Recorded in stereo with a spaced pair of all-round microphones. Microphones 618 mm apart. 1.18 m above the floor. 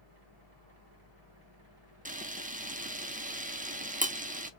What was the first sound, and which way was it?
A machine running, 55° right (ahead or behind).